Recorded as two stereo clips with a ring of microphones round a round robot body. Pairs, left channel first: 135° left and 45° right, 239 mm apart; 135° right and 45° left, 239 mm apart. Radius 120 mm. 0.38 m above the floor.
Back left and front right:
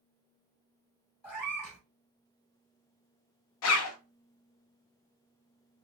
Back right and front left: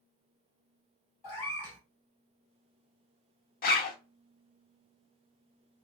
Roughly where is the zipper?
Behind.